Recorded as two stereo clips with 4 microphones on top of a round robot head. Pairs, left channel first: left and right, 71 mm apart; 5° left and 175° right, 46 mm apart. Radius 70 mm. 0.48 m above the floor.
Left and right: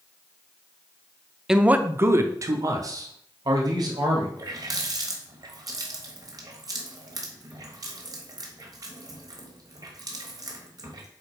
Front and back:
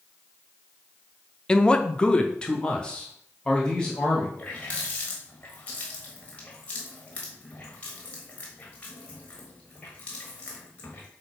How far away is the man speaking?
About 0.7 m.